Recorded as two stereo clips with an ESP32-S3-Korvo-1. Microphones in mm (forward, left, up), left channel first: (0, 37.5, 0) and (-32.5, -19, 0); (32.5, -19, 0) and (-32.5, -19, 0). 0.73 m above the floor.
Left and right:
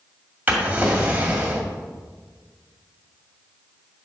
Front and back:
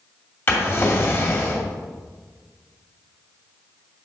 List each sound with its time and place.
0.5 s a drawer: 55° right, 1.8 m